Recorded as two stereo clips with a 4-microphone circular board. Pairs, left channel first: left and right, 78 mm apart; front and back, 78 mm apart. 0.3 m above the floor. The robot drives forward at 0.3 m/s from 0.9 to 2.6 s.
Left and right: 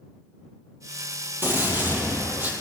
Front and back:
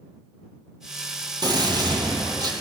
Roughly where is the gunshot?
Behind right.